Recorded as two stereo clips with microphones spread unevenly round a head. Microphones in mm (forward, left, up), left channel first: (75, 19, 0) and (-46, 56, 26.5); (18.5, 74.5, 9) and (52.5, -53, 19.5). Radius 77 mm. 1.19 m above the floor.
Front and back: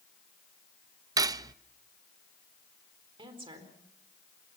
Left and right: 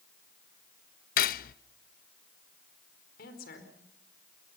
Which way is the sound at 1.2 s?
115° left.